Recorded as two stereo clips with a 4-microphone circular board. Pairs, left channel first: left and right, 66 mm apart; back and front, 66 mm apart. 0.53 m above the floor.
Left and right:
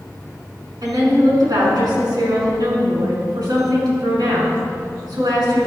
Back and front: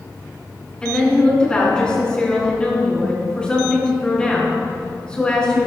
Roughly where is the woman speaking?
Right.